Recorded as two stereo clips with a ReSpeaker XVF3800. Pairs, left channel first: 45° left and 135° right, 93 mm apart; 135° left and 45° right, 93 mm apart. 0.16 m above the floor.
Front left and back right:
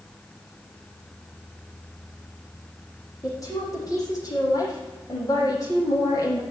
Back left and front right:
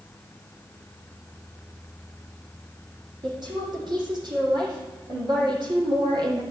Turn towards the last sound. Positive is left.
turn(degrees=-10)